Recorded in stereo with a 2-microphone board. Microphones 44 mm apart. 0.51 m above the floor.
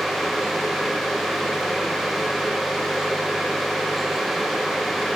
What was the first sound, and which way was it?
Only background noise.